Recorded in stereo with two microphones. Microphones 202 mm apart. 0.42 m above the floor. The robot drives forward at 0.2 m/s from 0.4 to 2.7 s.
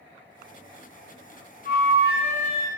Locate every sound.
1.6 s a flute: 60° right (ahead or behind), 1.9 m; by 2.7 s 65° right (ahead or behind), 1.9 m